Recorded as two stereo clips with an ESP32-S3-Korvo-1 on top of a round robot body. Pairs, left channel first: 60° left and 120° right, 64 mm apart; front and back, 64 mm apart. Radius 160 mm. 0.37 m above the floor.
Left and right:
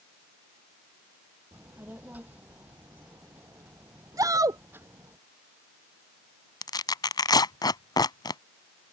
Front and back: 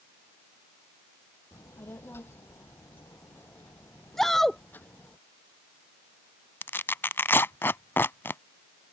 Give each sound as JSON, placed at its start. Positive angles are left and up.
{"t": 1.5, "sound": "a child speaking", "azimuth_deg": -50}
{"t": 4.2, "sound": "a shout", "azimuth_deg": -85}
{"t": 6.6, "sound": "tearing paper", "azimuth_deg": 60}